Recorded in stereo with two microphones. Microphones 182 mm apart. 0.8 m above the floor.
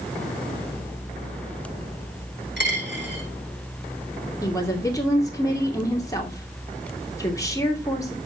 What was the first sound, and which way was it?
A dropped coin, 80° right.